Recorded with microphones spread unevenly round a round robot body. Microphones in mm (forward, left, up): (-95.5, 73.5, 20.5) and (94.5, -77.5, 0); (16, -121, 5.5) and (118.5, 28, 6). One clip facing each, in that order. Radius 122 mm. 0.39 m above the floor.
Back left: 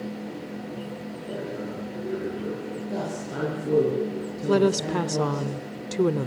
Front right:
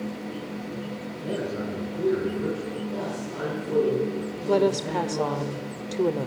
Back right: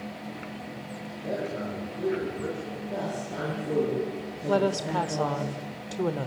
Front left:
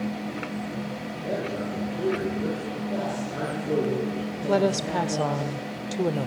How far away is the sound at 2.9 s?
About 8.5 m.